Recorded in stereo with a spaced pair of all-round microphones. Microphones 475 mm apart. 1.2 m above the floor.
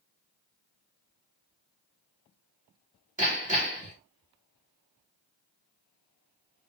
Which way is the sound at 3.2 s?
20° right (ahead or behind).